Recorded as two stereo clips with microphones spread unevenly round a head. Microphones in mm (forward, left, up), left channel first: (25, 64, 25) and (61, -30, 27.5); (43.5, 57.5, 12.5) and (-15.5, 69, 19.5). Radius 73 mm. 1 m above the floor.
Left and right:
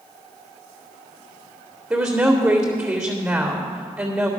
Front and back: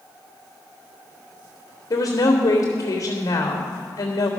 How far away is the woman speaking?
About 2 m.